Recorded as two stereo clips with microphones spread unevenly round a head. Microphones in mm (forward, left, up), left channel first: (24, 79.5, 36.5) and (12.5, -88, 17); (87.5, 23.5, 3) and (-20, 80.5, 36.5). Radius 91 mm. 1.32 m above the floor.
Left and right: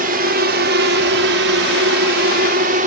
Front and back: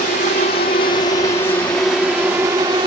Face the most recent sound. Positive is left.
turn(degrees=-140)